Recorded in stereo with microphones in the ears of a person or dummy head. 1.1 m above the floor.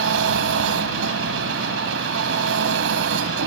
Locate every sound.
0.0 s an engine running: 75° right (ahead or behind)